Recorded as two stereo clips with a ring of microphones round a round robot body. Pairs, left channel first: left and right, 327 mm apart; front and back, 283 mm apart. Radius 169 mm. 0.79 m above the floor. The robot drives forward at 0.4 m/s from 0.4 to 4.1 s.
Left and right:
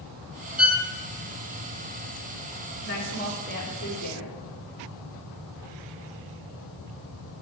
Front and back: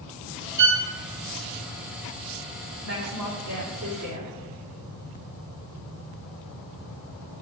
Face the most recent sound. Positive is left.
turn(degrees=155)